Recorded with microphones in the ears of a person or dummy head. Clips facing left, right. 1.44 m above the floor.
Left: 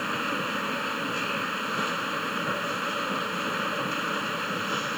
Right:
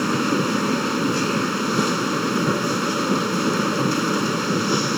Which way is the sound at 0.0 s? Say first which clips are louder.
Right 12 dB; 50° right (ahead or behind).